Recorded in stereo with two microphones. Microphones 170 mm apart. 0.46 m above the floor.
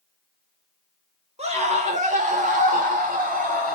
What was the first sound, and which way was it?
A scream, 35° right (ahead or behind).